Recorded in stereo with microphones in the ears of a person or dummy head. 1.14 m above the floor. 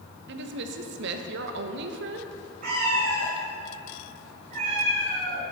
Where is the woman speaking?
65° right (ahead or behind), 1.0 m.